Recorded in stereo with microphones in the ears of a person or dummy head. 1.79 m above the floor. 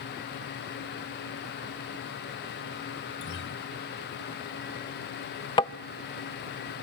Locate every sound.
3.2 s a guitar: 55° left (ahead or behind), 0.7 m
5.6 s tapping: 25° left (ahead or behind), 0.5 m